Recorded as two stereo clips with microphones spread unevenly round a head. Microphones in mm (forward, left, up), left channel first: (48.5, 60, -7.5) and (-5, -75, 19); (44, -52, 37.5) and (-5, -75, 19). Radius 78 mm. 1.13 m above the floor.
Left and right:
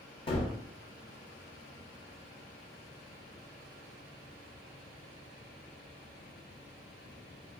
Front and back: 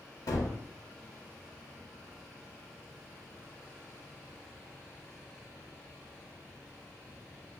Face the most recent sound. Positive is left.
turn(degrees=35)